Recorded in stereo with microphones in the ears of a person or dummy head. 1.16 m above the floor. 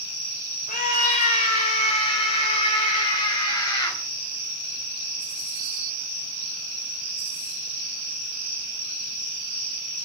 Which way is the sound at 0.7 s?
45° left (ahead or behind).